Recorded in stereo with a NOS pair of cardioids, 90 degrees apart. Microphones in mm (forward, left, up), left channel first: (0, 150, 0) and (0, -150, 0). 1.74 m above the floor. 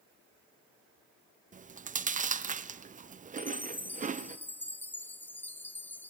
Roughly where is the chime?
Ahead.